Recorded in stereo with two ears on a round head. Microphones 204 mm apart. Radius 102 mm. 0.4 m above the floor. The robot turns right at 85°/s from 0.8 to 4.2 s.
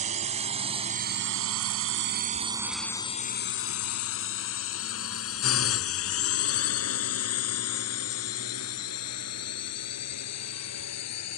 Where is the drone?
30° right (ahead or behind); by 11.4 s 80° left.